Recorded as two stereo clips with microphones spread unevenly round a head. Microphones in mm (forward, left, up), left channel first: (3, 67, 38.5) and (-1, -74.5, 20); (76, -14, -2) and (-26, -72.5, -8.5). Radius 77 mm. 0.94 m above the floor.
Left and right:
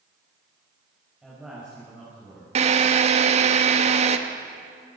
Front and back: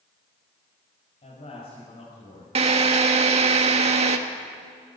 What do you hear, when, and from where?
1.2 s a man speaking: 5° right, 6 m; by 2.5 s 10° right, 6 m
2.5 s a drill: 125° right, 1.5 m